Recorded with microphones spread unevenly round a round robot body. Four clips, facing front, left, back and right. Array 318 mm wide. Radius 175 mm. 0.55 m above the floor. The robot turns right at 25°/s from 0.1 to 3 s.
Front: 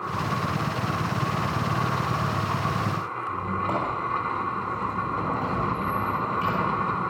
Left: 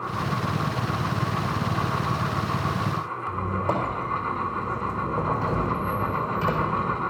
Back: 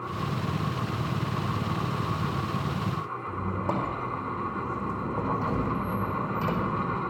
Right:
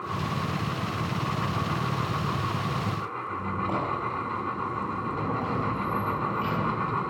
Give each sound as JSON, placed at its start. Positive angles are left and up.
{"t": 3.3, "sound": "a squeak", "azimuth_deg": 130, "distance_m": 4.0}